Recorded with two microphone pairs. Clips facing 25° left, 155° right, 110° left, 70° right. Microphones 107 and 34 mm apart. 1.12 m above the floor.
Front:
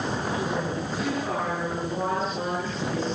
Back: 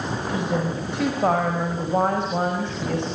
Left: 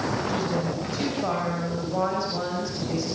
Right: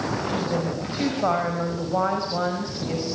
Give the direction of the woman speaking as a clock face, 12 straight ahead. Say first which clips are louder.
Back 3 dB, right 1 dB; 5 o'clock.